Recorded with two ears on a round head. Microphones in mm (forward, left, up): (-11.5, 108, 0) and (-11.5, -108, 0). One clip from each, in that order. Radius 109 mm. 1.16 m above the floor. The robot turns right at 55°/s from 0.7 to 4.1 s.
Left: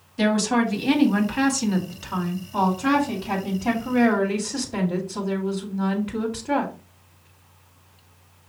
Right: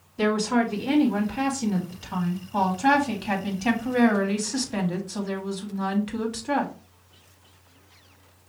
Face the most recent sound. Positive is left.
turn(degrees=-80)